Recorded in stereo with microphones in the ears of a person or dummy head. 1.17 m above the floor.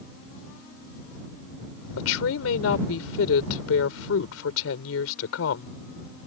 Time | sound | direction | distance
2.0 | a woman speaking | 85° left | ?